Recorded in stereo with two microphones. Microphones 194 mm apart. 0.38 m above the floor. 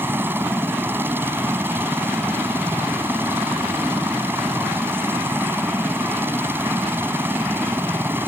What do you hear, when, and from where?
0.0 s a helicopter: 10° right (ahead or behind)